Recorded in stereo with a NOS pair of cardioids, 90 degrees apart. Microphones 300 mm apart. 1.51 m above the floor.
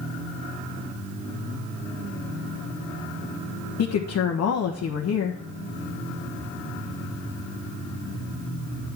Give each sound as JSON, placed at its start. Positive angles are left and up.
{"t": 3.8, "sound": "a woman speaking", "azimuth_deg": 65, "distance_m": 1.3}